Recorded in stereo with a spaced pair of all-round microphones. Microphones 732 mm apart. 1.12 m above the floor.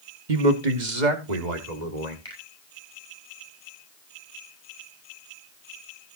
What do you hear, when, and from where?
0.3 s a man speaking: 80° right, 1.5 m; by 2.1 s 65° right (ahead or behind), 3.5 m
2.2 s a finger snap: 45° left (ahead or behind), 6 m